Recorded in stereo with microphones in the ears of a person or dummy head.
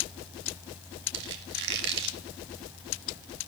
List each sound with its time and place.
1.1 s a squeak: 65° right (ahead or behind), 2 m